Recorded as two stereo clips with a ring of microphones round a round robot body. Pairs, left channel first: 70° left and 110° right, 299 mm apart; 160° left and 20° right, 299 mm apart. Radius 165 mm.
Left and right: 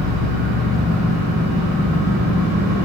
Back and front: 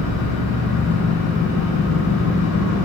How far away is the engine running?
About 3.5 m.